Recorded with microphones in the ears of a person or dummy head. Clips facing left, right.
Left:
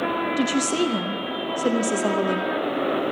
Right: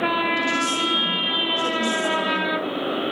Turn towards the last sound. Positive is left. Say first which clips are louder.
# left 4 dB
turn(degrees=45)  # may be behind; listen again after turning